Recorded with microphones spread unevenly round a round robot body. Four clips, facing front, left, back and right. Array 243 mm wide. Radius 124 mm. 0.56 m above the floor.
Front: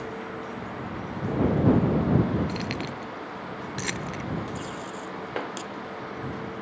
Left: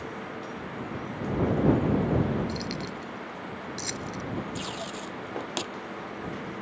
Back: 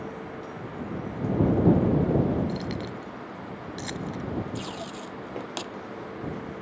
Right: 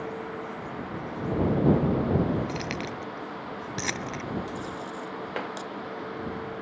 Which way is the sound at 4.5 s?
105° left.